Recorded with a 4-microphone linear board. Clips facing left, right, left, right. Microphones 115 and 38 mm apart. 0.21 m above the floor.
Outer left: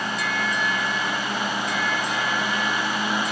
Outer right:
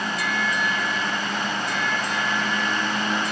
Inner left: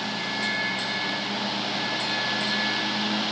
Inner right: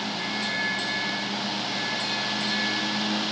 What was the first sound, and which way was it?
Only background noise.